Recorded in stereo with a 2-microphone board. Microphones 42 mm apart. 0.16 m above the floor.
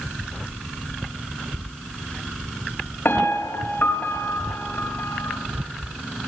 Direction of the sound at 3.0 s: 55° left (ahead or behind).